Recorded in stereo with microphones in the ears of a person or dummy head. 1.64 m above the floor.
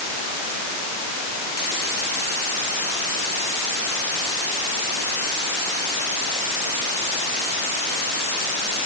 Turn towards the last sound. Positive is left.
No sound to turn to.